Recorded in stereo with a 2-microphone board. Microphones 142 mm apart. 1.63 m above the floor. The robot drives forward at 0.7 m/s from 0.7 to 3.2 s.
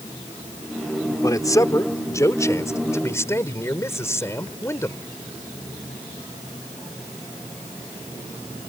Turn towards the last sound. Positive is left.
turn(degrees=20)  # may be behind; listen again after turning